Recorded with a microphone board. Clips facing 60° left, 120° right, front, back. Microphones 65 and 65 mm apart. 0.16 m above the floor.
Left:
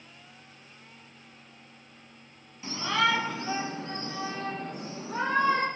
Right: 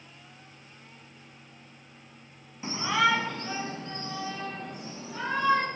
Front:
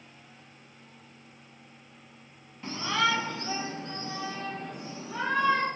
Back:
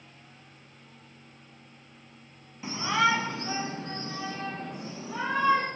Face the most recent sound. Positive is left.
turn(degrees=115)